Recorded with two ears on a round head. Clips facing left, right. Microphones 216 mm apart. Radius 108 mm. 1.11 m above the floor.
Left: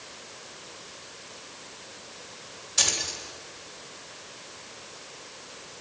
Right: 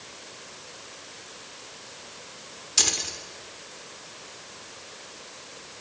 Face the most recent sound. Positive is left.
turn(degrees=-60)  # may be behind; listen again after turning